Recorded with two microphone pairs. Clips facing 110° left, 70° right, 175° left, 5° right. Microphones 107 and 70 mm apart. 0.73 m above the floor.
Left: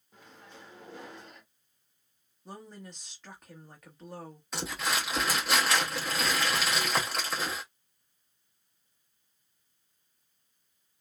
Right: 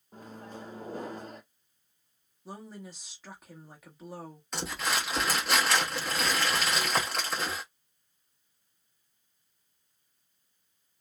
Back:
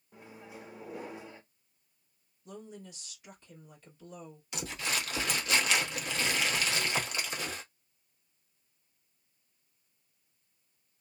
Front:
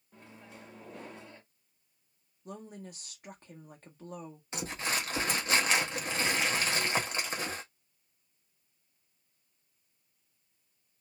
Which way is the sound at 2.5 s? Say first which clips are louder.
Right 2 dB, front 2 dB; 10° left.